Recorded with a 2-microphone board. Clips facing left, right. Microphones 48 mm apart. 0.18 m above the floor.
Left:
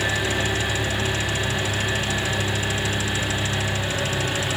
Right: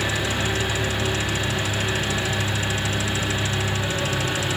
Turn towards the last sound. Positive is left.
turn(degrees=10)  # may be behind; listen again after turning